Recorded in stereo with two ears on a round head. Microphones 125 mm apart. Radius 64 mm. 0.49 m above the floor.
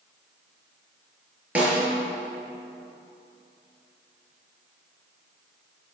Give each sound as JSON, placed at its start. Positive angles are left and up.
{"t": 1.6, "sound": "a snare drum", "side_deg": -10, "distance_m": 5.5}